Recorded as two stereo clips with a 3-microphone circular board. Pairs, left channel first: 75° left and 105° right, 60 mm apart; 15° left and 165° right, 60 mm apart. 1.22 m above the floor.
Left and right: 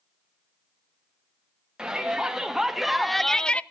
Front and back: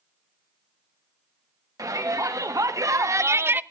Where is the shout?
175° left, 1.8 m; by 3.6 s 140° left, 0.5 m.